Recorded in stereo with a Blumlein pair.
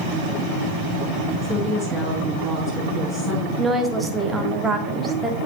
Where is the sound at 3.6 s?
10° right, 1.5 m.